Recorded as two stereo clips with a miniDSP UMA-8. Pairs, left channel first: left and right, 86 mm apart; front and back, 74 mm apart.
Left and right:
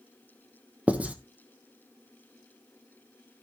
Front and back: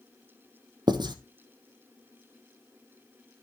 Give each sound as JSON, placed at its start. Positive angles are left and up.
{"t": 0.9, "sound": "writing", "azimuth_deg": -165, "distance_m": 1.0}